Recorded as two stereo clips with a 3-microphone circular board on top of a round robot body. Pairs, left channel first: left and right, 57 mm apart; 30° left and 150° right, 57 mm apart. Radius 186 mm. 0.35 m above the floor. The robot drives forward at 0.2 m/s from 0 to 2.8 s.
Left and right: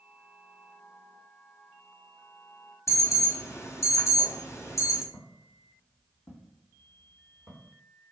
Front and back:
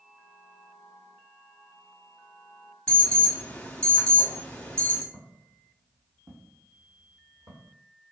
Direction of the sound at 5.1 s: 120° left.